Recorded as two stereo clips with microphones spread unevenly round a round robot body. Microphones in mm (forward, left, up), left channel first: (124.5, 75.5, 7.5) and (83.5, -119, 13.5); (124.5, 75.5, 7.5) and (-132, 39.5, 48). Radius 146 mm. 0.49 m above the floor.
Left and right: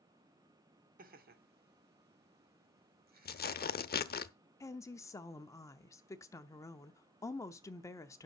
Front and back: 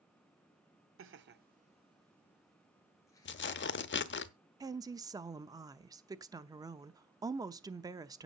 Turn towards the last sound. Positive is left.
turn(degrees=110)